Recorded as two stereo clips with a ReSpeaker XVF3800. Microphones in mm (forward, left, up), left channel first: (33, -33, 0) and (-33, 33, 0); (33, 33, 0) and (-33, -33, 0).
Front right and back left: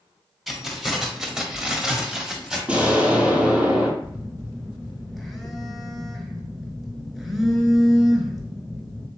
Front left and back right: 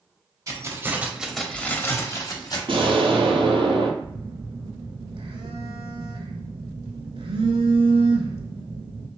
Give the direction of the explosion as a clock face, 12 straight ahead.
5 o'clock.